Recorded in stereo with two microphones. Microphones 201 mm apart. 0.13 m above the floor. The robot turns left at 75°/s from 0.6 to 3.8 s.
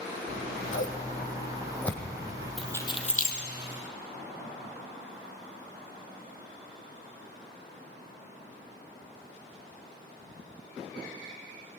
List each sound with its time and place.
0.3 s scissors: 70° left (ahead or behind), 3 m; by 2.5 s 35° right (ahead or behind), 3 m
2.6 s keys jangling: centre (ahead or behind), 2.5 m; by 3.4 s 55° left (ahead or behind), 2.5 m